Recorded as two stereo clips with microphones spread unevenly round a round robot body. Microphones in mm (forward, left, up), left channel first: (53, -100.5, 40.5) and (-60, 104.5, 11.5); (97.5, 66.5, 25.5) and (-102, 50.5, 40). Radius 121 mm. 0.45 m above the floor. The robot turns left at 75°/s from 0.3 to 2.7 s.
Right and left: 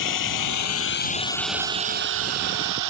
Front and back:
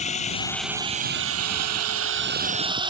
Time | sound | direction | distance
0.0 | a drone | 60° right | ?